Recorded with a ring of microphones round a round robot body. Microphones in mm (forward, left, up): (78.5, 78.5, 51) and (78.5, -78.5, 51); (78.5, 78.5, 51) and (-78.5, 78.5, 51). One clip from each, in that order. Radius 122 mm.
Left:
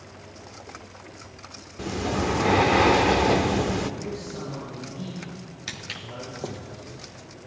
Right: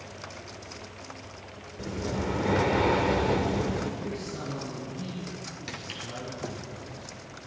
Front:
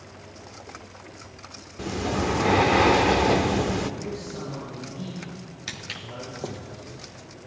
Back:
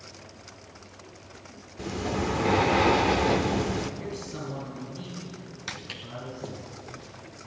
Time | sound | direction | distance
1.8 | breathing | 80° left | 0.5 m
4.0 | a man speaking | straight behind | 6 m
5.7 | footsteps | 80° left | 0.8 m